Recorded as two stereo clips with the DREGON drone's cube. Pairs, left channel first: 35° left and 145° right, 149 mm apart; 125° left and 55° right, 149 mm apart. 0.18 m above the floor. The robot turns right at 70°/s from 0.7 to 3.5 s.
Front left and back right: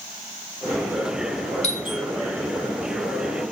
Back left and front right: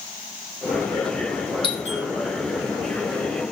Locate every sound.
1.6 s a doorbell: 70° left, 4 m; by 2.0 s 100° left, 4 m